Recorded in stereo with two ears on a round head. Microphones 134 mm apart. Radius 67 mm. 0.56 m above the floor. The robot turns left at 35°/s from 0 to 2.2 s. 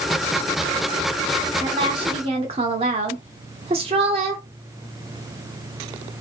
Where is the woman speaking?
30° right (ahead or behind), 0.8 m; by 4.4 s 40° right (ahead or behind), 0.8 m.